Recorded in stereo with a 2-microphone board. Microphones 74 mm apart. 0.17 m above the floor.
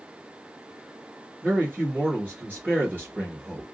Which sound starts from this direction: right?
A man speaking, at 1.4 s.